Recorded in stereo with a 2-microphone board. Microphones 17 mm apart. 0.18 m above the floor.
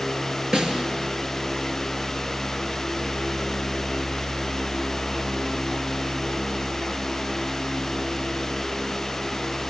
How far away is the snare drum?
About 2.0 m.